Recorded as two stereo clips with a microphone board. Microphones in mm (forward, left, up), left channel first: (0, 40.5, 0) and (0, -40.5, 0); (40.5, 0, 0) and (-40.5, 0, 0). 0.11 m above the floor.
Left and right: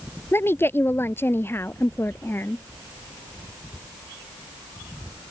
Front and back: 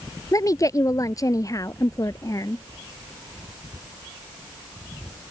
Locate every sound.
0.3 s a woman speaking: 35° left